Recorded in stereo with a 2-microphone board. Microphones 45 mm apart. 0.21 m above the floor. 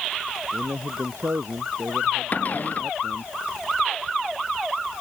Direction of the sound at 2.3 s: 40° left (ahead or behind).